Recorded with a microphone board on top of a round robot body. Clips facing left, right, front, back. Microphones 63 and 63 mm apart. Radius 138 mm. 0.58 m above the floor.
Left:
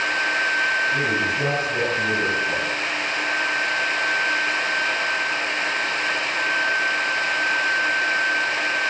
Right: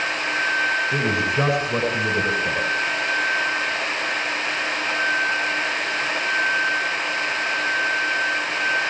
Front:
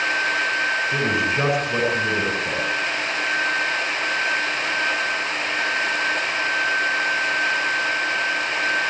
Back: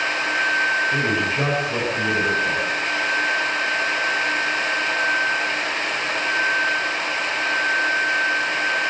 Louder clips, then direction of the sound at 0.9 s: Even, even; 80° right.